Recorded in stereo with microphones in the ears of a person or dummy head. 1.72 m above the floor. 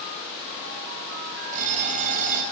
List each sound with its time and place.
1.5 s an alarm clock: 40° right (ahead or behind), 6 m